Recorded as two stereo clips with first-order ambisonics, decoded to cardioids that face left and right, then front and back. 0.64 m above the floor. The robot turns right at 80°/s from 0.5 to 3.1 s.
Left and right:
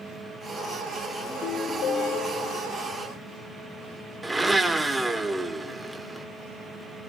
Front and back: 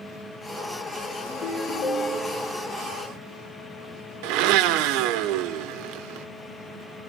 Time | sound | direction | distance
1.3 | a ringtone | 5° left | 7.5 m
4.2 | a blender | 175° right | 0.9 m